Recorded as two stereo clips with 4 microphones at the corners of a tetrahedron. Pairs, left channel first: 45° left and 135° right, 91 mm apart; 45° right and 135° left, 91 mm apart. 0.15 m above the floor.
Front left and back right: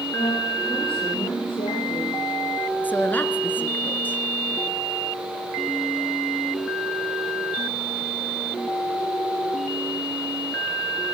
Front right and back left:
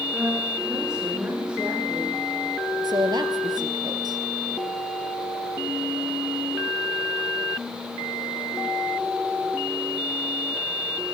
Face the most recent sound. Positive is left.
turn(degrees=110)